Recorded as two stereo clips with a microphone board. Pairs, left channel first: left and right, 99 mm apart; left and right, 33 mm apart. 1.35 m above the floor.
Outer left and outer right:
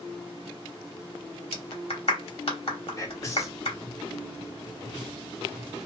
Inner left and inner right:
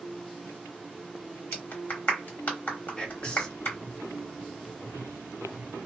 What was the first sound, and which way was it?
A clap, 70° left (ahead or behind).